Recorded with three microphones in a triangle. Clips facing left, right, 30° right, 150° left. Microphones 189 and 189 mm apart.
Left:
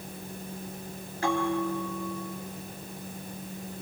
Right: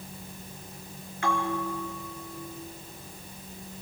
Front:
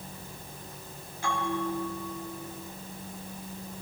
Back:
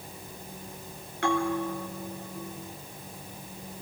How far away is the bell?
About 4 m.